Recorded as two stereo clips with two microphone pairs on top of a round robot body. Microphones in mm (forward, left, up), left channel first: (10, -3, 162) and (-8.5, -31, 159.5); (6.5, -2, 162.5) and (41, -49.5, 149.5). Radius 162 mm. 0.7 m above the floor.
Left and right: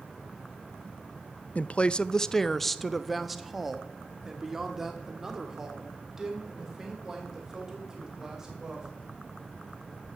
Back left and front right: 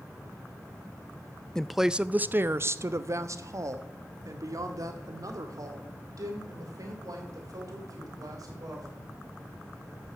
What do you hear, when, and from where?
1.6 s a woman speaking: 30° left, 0.5 m; by 8.9 s 50° right, 4 m